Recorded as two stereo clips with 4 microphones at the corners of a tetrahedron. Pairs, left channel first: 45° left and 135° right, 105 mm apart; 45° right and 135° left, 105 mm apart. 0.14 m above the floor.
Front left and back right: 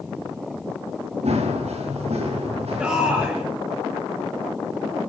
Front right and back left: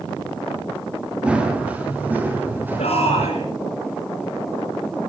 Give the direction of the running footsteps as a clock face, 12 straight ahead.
5 o'clock.